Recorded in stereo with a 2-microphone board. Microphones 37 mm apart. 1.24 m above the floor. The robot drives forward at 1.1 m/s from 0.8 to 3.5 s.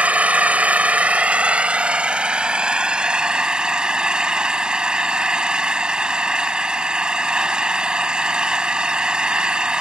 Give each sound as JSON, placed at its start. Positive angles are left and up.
{"t": 0.0, "sound": "an engine running", "side_deg": -40}